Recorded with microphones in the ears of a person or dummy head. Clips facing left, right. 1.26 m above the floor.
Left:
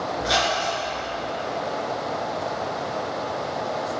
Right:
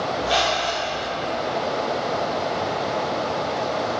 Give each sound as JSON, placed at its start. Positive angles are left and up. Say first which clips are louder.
{"t": 0.2, "sound": "a squeak", "louder": "right 1 dB", "side_deg": 70, "distance_m": 3.0}